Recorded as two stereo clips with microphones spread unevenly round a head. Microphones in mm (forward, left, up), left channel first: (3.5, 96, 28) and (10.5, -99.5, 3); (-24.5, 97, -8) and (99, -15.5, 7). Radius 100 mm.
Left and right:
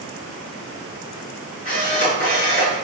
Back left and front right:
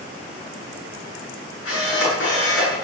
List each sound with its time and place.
1.6 s a camera shutter: 145° left, 9 m